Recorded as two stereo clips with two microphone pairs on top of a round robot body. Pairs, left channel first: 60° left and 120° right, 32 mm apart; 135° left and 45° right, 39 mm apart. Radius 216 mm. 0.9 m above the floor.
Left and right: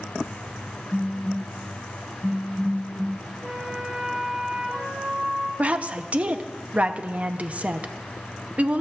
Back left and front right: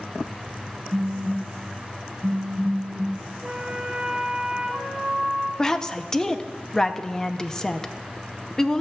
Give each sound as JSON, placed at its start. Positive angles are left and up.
{"t": 0.9, "sound": "a phone buzzing", "azimuth_deg": -20, "distance_m": 1.1}
{"t": 3.4, "sound": "a flute", "azimuth_deg": -110, "distance_m": 3.5}
{"t": 5.6, "sound": "a woman speaking", "azimuth_deg": -160, "distance_m": 0.7}